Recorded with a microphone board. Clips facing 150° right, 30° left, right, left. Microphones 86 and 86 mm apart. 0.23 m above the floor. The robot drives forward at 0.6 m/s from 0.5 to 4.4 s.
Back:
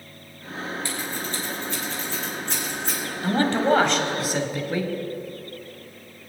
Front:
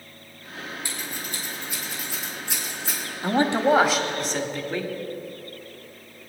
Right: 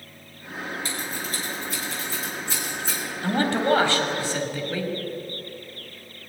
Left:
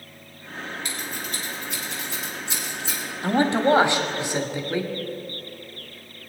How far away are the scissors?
About 4 m.